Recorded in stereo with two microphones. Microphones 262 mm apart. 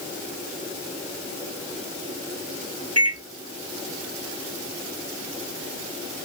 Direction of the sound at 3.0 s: 65° right (ahead or behind).